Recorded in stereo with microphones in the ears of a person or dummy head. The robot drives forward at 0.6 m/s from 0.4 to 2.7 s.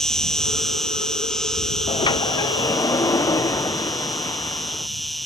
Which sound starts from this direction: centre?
An insect, at 0.0 s.